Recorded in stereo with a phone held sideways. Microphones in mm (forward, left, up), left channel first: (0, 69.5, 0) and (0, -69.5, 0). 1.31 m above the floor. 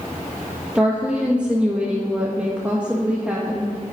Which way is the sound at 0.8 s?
10° right (ahead or behind).